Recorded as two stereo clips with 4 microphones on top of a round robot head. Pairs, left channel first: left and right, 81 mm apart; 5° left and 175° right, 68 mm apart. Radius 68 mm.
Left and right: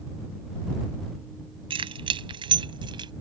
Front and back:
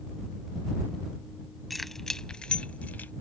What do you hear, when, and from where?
1.7 s keys jangling: 85° right; by 3.1 s 65° right